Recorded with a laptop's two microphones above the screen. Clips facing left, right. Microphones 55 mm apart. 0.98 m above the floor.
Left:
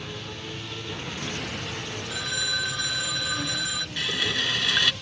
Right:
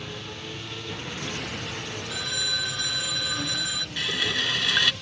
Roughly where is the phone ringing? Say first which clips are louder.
Left 2 dB; centre.